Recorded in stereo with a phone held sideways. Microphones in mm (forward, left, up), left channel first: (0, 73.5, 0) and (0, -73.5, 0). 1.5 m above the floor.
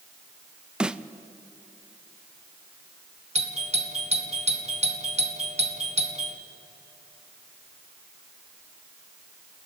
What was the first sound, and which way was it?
A snare drum, 5° right (ahead or behind).